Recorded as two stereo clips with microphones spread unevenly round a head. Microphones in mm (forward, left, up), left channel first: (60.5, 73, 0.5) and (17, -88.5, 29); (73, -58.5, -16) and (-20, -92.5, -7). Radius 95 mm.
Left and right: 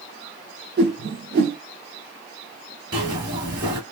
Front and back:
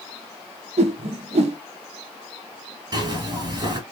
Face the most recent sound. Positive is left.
turn(degrees=-150)